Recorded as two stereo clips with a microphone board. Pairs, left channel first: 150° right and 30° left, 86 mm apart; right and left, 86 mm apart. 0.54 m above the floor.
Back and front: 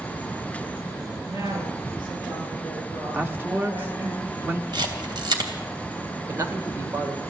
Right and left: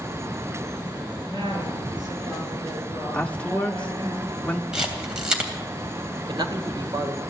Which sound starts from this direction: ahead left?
A woman speaking, at 1.2 s.